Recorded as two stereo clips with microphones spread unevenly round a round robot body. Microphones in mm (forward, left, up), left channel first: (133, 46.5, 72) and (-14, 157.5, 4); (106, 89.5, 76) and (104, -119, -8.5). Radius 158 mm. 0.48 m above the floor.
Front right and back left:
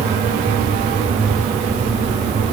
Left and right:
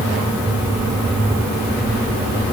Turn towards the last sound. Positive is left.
No sound to turn to.